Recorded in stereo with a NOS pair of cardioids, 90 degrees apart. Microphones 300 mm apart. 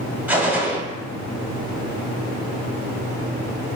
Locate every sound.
0.3 s a gunshot: 5° right, 0.7 m